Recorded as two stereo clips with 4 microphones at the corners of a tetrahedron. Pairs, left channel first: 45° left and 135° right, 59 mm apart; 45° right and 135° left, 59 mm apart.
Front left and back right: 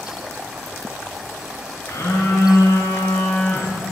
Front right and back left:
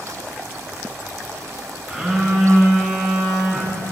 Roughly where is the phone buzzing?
Ahead left.